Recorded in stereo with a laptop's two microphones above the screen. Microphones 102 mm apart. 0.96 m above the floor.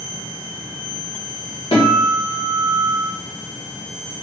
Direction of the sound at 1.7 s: 70° left (ahead or behind).